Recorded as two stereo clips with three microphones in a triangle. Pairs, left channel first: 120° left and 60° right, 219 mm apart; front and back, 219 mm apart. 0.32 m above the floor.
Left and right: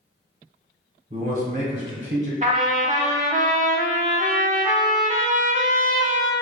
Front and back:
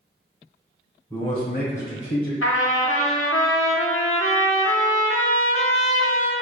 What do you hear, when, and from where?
1.1 s a man speaking: 60° right, 1.1 m; by 2.3 s 5° right, 2.5 m
2.4 s a trumpet: 5° right, 0.6 m